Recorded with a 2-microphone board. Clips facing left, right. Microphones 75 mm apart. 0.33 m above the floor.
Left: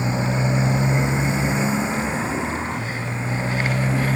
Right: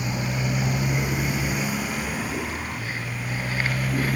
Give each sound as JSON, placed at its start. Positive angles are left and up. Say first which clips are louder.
{"t": 0.0, "sound": "a motorcycle", "louder": "left 5 dB", "side_deg": 25}